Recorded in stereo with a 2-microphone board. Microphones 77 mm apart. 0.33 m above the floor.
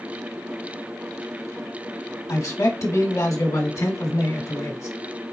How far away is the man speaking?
About 1.3 m.